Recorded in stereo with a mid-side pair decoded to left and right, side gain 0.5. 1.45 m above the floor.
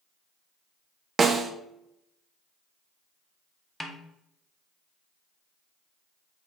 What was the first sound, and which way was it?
A snare drum, 35° right.